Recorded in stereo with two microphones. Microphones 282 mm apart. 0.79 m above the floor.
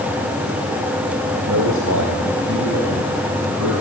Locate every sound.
1.5 s a man speaking: 80° right, 3 m